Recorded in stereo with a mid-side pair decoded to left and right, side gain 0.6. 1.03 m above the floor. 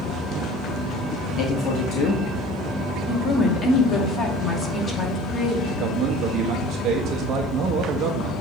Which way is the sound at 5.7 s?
60° right.